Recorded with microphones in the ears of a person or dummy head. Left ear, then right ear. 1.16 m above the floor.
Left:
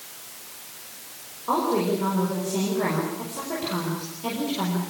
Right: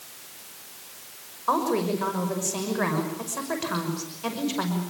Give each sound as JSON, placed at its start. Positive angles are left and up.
{"t": 1.5, "sound": "a woman speaking", "side_deg": -55, "distance_m": 6.0}